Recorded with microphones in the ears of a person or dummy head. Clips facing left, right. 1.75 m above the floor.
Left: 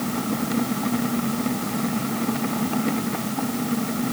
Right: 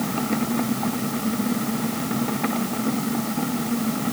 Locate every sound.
Only background noise.